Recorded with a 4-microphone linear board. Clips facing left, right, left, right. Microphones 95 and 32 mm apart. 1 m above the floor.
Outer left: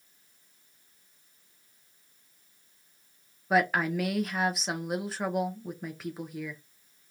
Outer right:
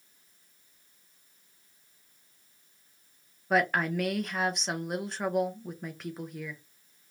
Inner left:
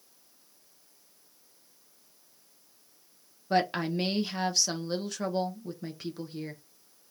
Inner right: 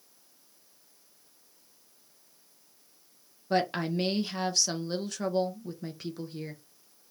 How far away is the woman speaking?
About 1.0 m.